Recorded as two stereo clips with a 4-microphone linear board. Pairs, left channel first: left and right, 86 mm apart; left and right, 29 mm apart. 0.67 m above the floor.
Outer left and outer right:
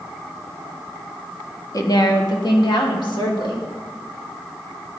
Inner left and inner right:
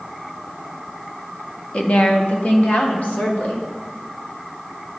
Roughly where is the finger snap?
I don't hear a finger snap.